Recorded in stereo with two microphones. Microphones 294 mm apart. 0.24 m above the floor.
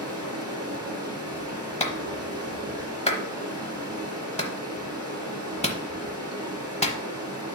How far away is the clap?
About 0.9 m.